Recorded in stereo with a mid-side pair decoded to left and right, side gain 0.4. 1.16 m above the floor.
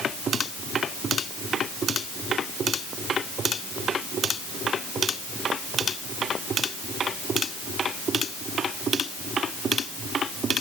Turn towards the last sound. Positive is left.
No sound to turn to.